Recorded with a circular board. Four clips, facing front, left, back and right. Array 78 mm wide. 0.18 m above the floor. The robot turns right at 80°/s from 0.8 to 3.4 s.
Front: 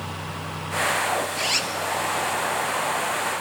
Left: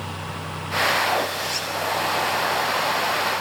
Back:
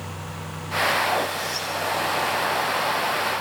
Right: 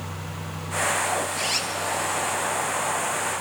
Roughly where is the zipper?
Ahead right.